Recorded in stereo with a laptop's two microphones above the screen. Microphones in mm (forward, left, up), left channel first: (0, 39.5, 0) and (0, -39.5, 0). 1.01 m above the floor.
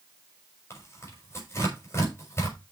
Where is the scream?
I don't hear a scream.